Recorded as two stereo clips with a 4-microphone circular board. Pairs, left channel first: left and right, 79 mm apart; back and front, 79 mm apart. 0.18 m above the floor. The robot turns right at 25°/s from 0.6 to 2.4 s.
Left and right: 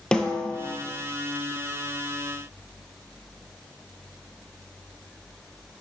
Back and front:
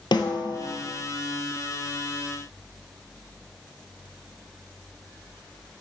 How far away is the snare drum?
About 0.9 m.